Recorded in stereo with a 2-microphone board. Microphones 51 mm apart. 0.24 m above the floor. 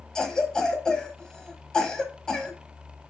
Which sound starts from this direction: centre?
A cough, at 0.1 s.